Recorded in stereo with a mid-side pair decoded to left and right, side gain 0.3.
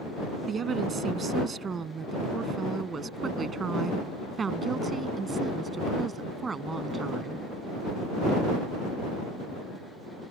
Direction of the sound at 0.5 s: 65° right.